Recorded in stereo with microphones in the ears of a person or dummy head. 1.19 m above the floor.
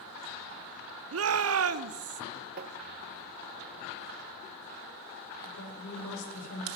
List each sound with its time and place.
1.1 s a shout: 65° right (ahead or behind), 0.5 m
2.6 s tapping: 50° right (ahead or behind), 0.8 m
5.4 s a woman speaking: 85° left, 4.5 m